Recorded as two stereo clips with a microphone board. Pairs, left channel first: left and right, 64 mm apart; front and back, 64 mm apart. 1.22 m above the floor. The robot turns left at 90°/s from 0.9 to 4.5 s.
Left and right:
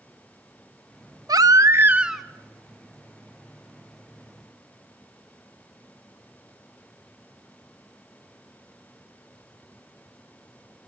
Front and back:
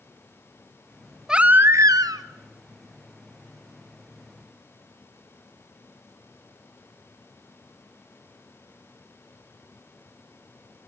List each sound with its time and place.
1.3 s a baby crying: 100° right, 1.0 m; by 2.2 s 175° left, 1.0 m